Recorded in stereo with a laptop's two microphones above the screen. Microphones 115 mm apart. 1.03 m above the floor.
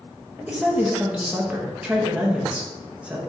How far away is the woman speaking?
About 0.7 m.